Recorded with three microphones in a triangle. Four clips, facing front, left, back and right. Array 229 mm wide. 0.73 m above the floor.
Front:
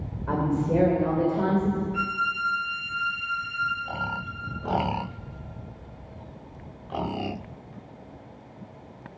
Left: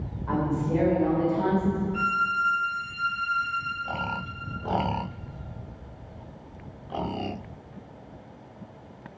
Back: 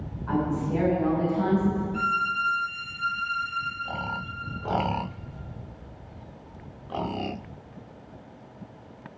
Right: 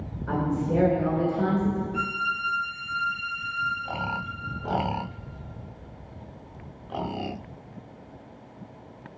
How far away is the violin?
About 4 m.